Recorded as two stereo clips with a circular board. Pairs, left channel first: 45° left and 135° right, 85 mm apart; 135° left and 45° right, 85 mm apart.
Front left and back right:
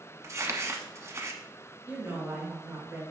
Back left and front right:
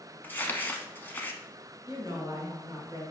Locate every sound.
0.2 s crumpling: 170° right, 0.8 m
1.9 s a woman speaking: 75° right, 2.5 m